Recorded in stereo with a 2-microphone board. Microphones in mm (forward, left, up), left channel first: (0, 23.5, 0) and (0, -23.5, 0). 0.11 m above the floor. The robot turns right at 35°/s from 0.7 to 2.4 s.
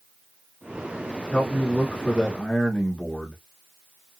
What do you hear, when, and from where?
1.3 s a man speaking: 25° left (ahead or behind), 1.2 m; by 3.4 s 15° left (ahead or behind), 1.2 m